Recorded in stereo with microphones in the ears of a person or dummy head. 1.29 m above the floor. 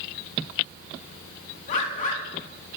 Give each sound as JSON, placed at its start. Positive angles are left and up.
{"t": 1.7, "sound": "a bird", "side_deg": 40, "distance_m": 1.5}